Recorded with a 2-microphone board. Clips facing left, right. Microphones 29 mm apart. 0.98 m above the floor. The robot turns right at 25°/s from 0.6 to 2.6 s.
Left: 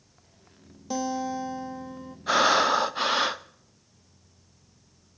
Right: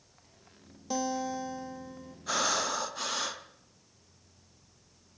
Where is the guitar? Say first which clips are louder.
Left 3 dB; 5° left, 0.8 m; by 2.2 s 40° left, 0.8 m.